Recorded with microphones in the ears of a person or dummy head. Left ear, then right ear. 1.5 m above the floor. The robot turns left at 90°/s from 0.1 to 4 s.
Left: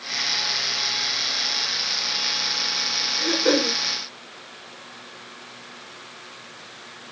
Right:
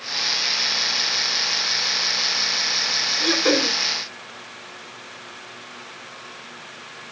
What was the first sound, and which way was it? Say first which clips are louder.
Throat clearing: right 1 dB; 135° right.